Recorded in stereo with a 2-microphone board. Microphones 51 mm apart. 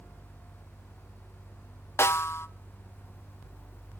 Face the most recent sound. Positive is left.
turn(degrees=60)  # may be behind; listen again after turning